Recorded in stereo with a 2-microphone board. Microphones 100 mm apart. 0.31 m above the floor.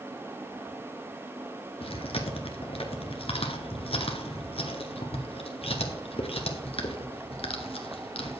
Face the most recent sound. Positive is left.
turn(degrees=70)  # may be behind; listen again after turning